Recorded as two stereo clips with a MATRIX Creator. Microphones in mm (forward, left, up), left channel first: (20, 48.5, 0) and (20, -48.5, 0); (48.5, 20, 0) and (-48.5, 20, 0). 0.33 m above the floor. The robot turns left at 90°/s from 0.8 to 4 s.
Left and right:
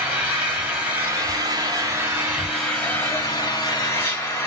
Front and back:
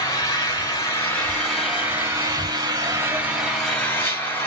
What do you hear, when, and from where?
0.0 s an engine running: 25° right, 1.2 m; by 4.5 s 50° left, 1.2 m